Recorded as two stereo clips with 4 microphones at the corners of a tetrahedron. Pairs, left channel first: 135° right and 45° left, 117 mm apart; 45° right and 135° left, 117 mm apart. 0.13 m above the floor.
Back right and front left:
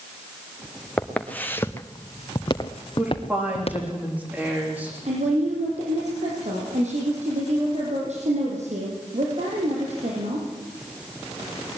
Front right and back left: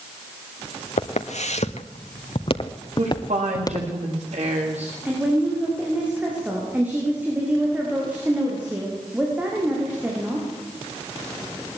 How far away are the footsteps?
About 1.9 m.